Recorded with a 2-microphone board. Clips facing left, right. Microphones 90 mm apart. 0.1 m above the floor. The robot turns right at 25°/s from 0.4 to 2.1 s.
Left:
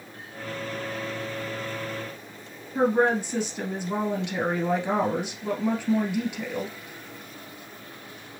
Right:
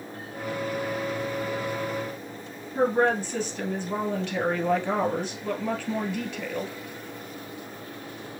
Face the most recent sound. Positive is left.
turn(degrees=20)  # may be behind; listen again after turning